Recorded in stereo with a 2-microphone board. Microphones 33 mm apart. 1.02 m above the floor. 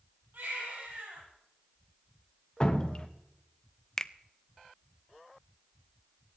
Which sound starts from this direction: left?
Dripping, at 2.6 s.